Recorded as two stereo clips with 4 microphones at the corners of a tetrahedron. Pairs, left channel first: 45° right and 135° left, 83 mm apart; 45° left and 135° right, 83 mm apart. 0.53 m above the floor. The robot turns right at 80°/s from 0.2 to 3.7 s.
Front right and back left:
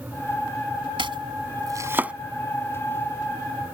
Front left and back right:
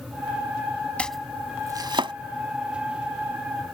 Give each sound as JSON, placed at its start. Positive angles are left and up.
{"t": 1.0, "sound": "chopping", "azimuth_deg": 120}